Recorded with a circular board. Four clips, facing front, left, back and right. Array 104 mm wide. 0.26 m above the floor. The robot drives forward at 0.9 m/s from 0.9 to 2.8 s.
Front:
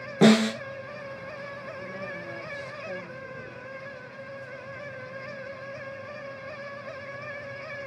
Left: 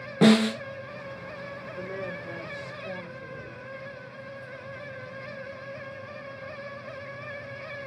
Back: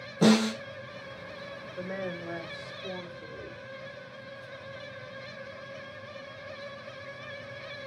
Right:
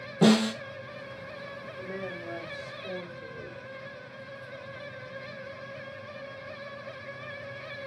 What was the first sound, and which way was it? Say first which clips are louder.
A snare drum: left 3 dB, front 4 dB; 35° left.